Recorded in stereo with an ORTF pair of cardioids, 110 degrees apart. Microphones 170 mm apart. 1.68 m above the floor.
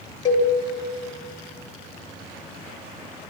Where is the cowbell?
25° left, 2 m.